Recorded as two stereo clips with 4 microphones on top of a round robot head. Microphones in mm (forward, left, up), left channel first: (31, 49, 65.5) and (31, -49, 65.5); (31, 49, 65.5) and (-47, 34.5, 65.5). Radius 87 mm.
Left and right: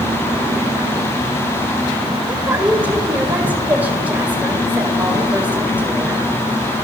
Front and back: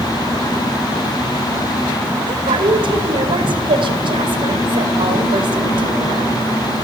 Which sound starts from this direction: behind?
A woman speaking, at 2.3 s.